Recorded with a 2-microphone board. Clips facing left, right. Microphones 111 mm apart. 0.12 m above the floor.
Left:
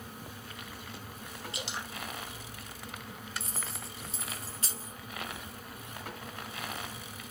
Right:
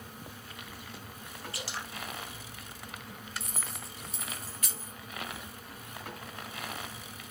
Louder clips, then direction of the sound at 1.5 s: Left 1 dB; 20° left (ahead or behind).